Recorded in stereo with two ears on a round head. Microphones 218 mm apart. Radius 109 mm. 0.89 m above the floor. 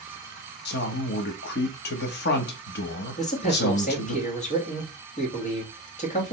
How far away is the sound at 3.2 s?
About 1.6 m.